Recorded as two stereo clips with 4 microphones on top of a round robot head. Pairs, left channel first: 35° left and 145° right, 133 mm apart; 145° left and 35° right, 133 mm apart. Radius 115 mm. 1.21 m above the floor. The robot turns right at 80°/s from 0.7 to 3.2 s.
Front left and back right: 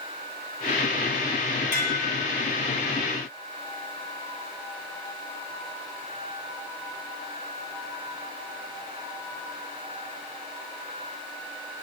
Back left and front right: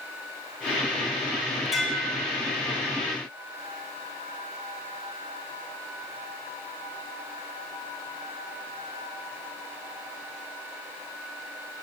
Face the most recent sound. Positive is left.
turn(degrees=175)